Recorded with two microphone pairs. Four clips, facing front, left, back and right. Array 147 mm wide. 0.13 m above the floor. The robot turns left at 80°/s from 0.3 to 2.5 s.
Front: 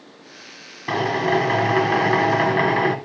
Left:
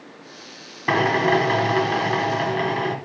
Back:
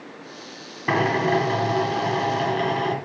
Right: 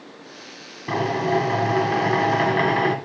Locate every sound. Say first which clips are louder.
0.9 s a drill: left 3 dB, even; 100° left, 1.8 m; by 3.0 s 30° right, 1.8 m